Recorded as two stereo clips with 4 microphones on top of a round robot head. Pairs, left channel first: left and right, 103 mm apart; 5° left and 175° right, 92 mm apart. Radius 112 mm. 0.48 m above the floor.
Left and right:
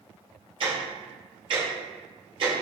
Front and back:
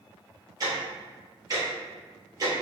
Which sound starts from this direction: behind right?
Ticking, at 0.6 s.